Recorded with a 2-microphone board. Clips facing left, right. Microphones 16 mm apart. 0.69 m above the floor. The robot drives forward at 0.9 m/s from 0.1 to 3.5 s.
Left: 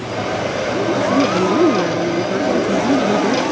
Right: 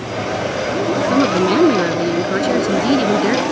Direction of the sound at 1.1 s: 65° right (ahead or behind).